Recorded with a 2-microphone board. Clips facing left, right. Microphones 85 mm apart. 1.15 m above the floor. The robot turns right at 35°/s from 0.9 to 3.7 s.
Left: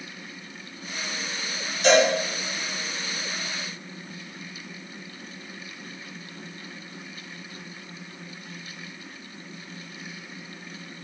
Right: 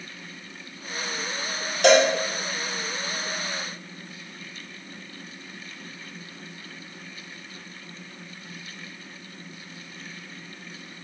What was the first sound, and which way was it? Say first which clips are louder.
A cowbell: right 2 dB; 60° right (ahead or behind).